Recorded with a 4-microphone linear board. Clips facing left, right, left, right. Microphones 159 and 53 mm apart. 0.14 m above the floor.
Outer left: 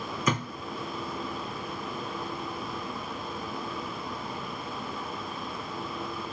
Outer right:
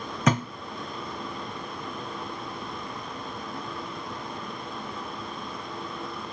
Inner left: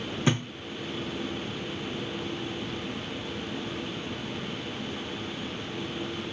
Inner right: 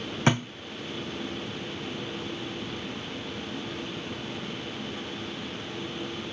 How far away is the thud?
About 2.5 m.